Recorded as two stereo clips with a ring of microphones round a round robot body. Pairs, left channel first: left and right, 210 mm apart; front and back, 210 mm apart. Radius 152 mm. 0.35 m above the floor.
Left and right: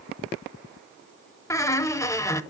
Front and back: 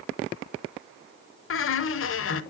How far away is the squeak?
About 0.8 m.